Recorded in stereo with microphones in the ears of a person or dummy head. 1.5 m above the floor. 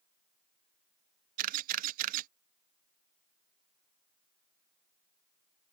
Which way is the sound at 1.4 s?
45° right (ahead or behind).